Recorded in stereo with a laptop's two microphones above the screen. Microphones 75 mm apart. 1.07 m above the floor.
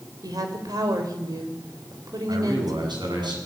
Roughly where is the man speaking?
Right.